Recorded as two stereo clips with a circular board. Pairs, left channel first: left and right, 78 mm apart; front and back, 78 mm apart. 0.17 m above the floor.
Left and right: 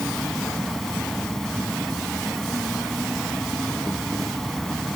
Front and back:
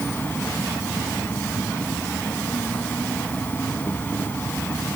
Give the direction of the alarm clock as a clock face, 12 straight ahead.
I don't hear an alarm clock.